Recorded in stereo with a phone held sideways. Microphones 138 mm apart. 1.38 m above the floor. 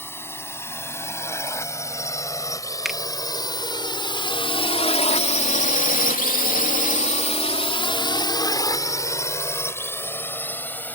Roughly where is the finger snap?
Centre.